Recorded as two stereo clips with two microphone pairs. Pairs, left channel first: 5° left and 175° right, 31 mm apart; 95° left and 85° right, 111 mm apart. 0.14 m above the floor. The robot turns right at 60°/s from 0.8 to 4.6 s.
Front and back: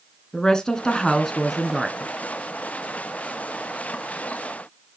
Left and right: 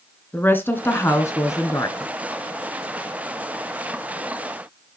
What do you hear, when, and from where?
0.3 s a woman speaking: 45° left, 1.5 m; by 2.1 s 125° left, 1.5 m